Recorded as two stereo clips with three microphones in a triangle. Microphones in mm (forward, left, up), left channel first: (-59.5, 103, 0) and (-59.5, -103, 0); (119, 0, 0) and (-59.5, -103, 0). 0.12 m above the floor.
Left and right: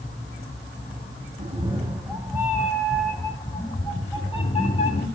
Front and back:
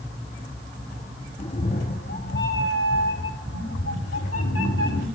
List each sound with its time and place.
1.4 s a cat meowing: 30° right, 1.2 m; by 5.1 s 30° left, 2.5 m